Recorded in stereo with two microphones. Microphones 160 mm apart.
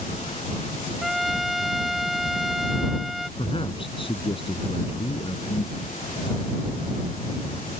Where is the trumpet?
Centre (ahead or behind).